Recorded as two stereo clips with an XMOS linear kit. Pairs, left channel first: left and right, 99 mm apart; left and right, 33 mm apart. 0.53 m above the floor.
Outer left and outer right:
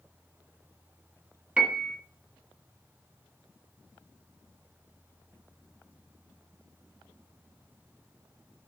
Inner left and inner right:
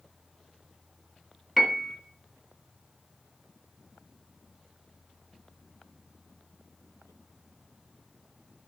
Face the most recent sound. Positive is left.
turn(degrees=-10)  # may be behind; listen again after turning